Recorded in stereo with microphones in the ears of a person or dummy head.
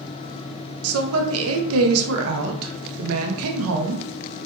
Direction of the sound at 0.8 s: 80° right.